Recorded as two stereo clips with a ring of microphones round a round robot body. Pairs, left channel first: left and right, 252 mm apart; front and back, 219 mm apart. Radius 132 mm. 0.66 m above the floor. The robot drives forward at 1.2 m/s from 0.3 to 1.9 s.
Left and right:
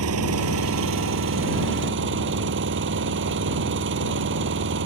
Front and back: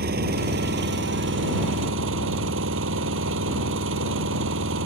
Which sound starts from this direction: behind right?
An engine running, at 0.0 s.